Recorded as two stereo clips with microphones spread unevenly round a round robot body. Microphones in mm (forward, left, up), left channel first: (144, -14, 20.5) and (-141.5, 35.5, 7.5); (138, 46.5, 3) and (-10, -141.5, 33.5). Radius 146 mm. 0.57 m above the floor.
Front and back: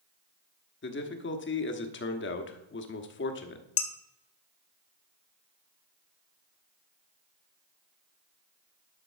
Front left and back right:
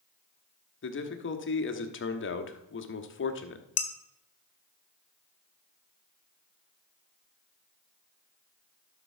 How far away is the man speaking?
About 1.3 m.